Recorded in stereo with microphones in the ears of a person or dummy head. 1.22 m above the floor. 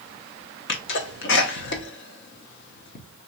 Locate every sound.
0.7 s a sneeze: 50° left (ahead or behind), 0.9 m